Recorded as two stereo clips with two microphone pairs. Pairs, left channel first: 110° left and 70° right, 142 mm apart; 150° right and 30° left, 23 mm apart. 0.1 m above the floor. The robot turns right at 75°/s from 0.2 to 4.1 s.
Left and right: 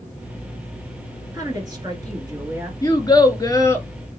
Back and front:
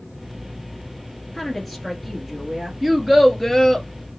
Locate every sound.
1.3 s a woman speaking: 105° right, 1.8 m; by 2.7 s 5° right, 1.8 m
2.8 s a child speaking: 85° left, 0.9 m; by 3.9 s 165° left, 0.9 m